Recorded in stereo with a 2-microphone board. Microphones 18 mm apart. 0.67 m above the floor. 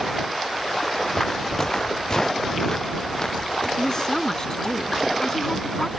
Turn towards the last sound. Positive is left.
turn(degrees=35)  # may be behind; listen again after turning